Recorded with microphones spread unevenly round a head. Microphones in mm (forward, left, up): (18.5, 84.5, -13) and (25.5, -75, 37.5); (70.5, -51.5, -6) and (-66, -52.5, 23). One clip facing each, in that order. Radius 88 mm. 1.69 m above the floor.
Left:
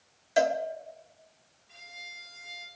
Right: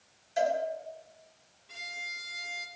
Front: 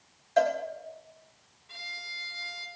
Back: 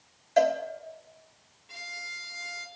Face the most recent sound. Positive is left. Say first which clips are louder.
# right 4 dB, back 2 dB
turn(degrees=-110)